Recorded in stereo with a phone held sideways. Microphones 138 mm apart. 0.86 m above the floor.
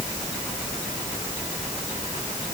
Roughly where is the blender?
I don't hear a blender.